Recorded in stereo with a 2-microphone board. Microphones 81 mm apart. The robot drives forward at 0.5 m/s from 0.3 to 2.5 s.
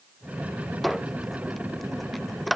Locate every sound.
0.8 s a squeak: centre (ahead or behind)